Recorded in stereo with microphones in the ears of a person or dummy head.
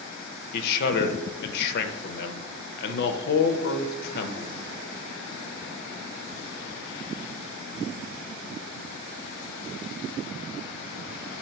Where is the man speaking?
55° left (ahead or behind), 0.5 m.